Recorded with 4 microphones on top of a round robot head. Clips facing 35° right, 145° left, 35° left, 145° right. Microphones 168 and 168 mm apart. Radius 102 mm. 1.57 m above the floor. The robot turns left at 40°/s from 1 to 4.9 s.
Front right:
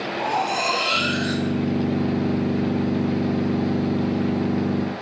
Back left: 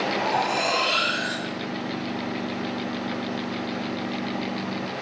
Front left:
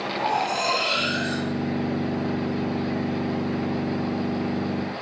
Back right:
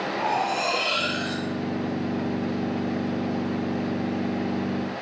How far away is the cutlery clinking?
About 1.2 m.